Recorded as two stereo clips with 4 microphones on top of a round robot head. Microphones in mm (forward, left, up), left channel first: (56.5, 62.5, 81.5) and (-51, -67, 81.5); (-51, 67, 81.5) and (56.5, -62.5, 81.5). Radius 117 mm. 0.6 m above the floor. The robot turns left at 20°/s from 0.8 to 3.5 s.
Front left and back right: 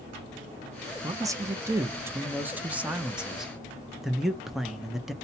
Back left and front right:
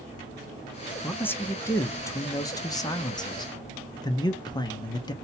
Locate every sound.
1.0 s a man speaking: 165° right, 0.6 m; by 5.1 s 145° left, 0.6 m